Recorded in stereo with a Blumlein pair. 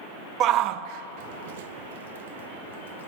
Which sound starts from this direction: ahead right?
A shout, at 0.4 s.